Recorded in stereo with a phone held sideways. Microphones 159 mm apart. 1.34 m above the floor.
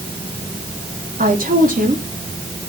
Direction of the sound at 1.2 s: 60° right (ahead or behind).